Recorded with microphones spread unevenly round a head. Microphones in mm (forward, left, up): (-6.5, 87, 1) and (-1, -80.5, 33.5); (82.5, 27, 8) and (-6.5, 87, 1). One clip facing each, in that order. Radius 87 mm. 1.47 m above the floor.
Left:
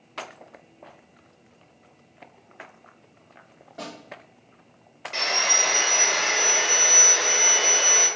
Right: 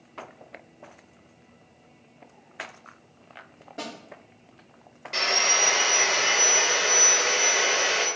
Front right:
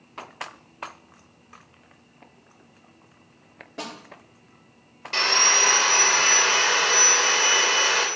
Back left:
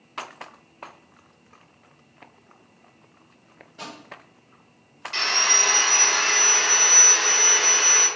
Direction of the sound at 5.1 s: 5° right.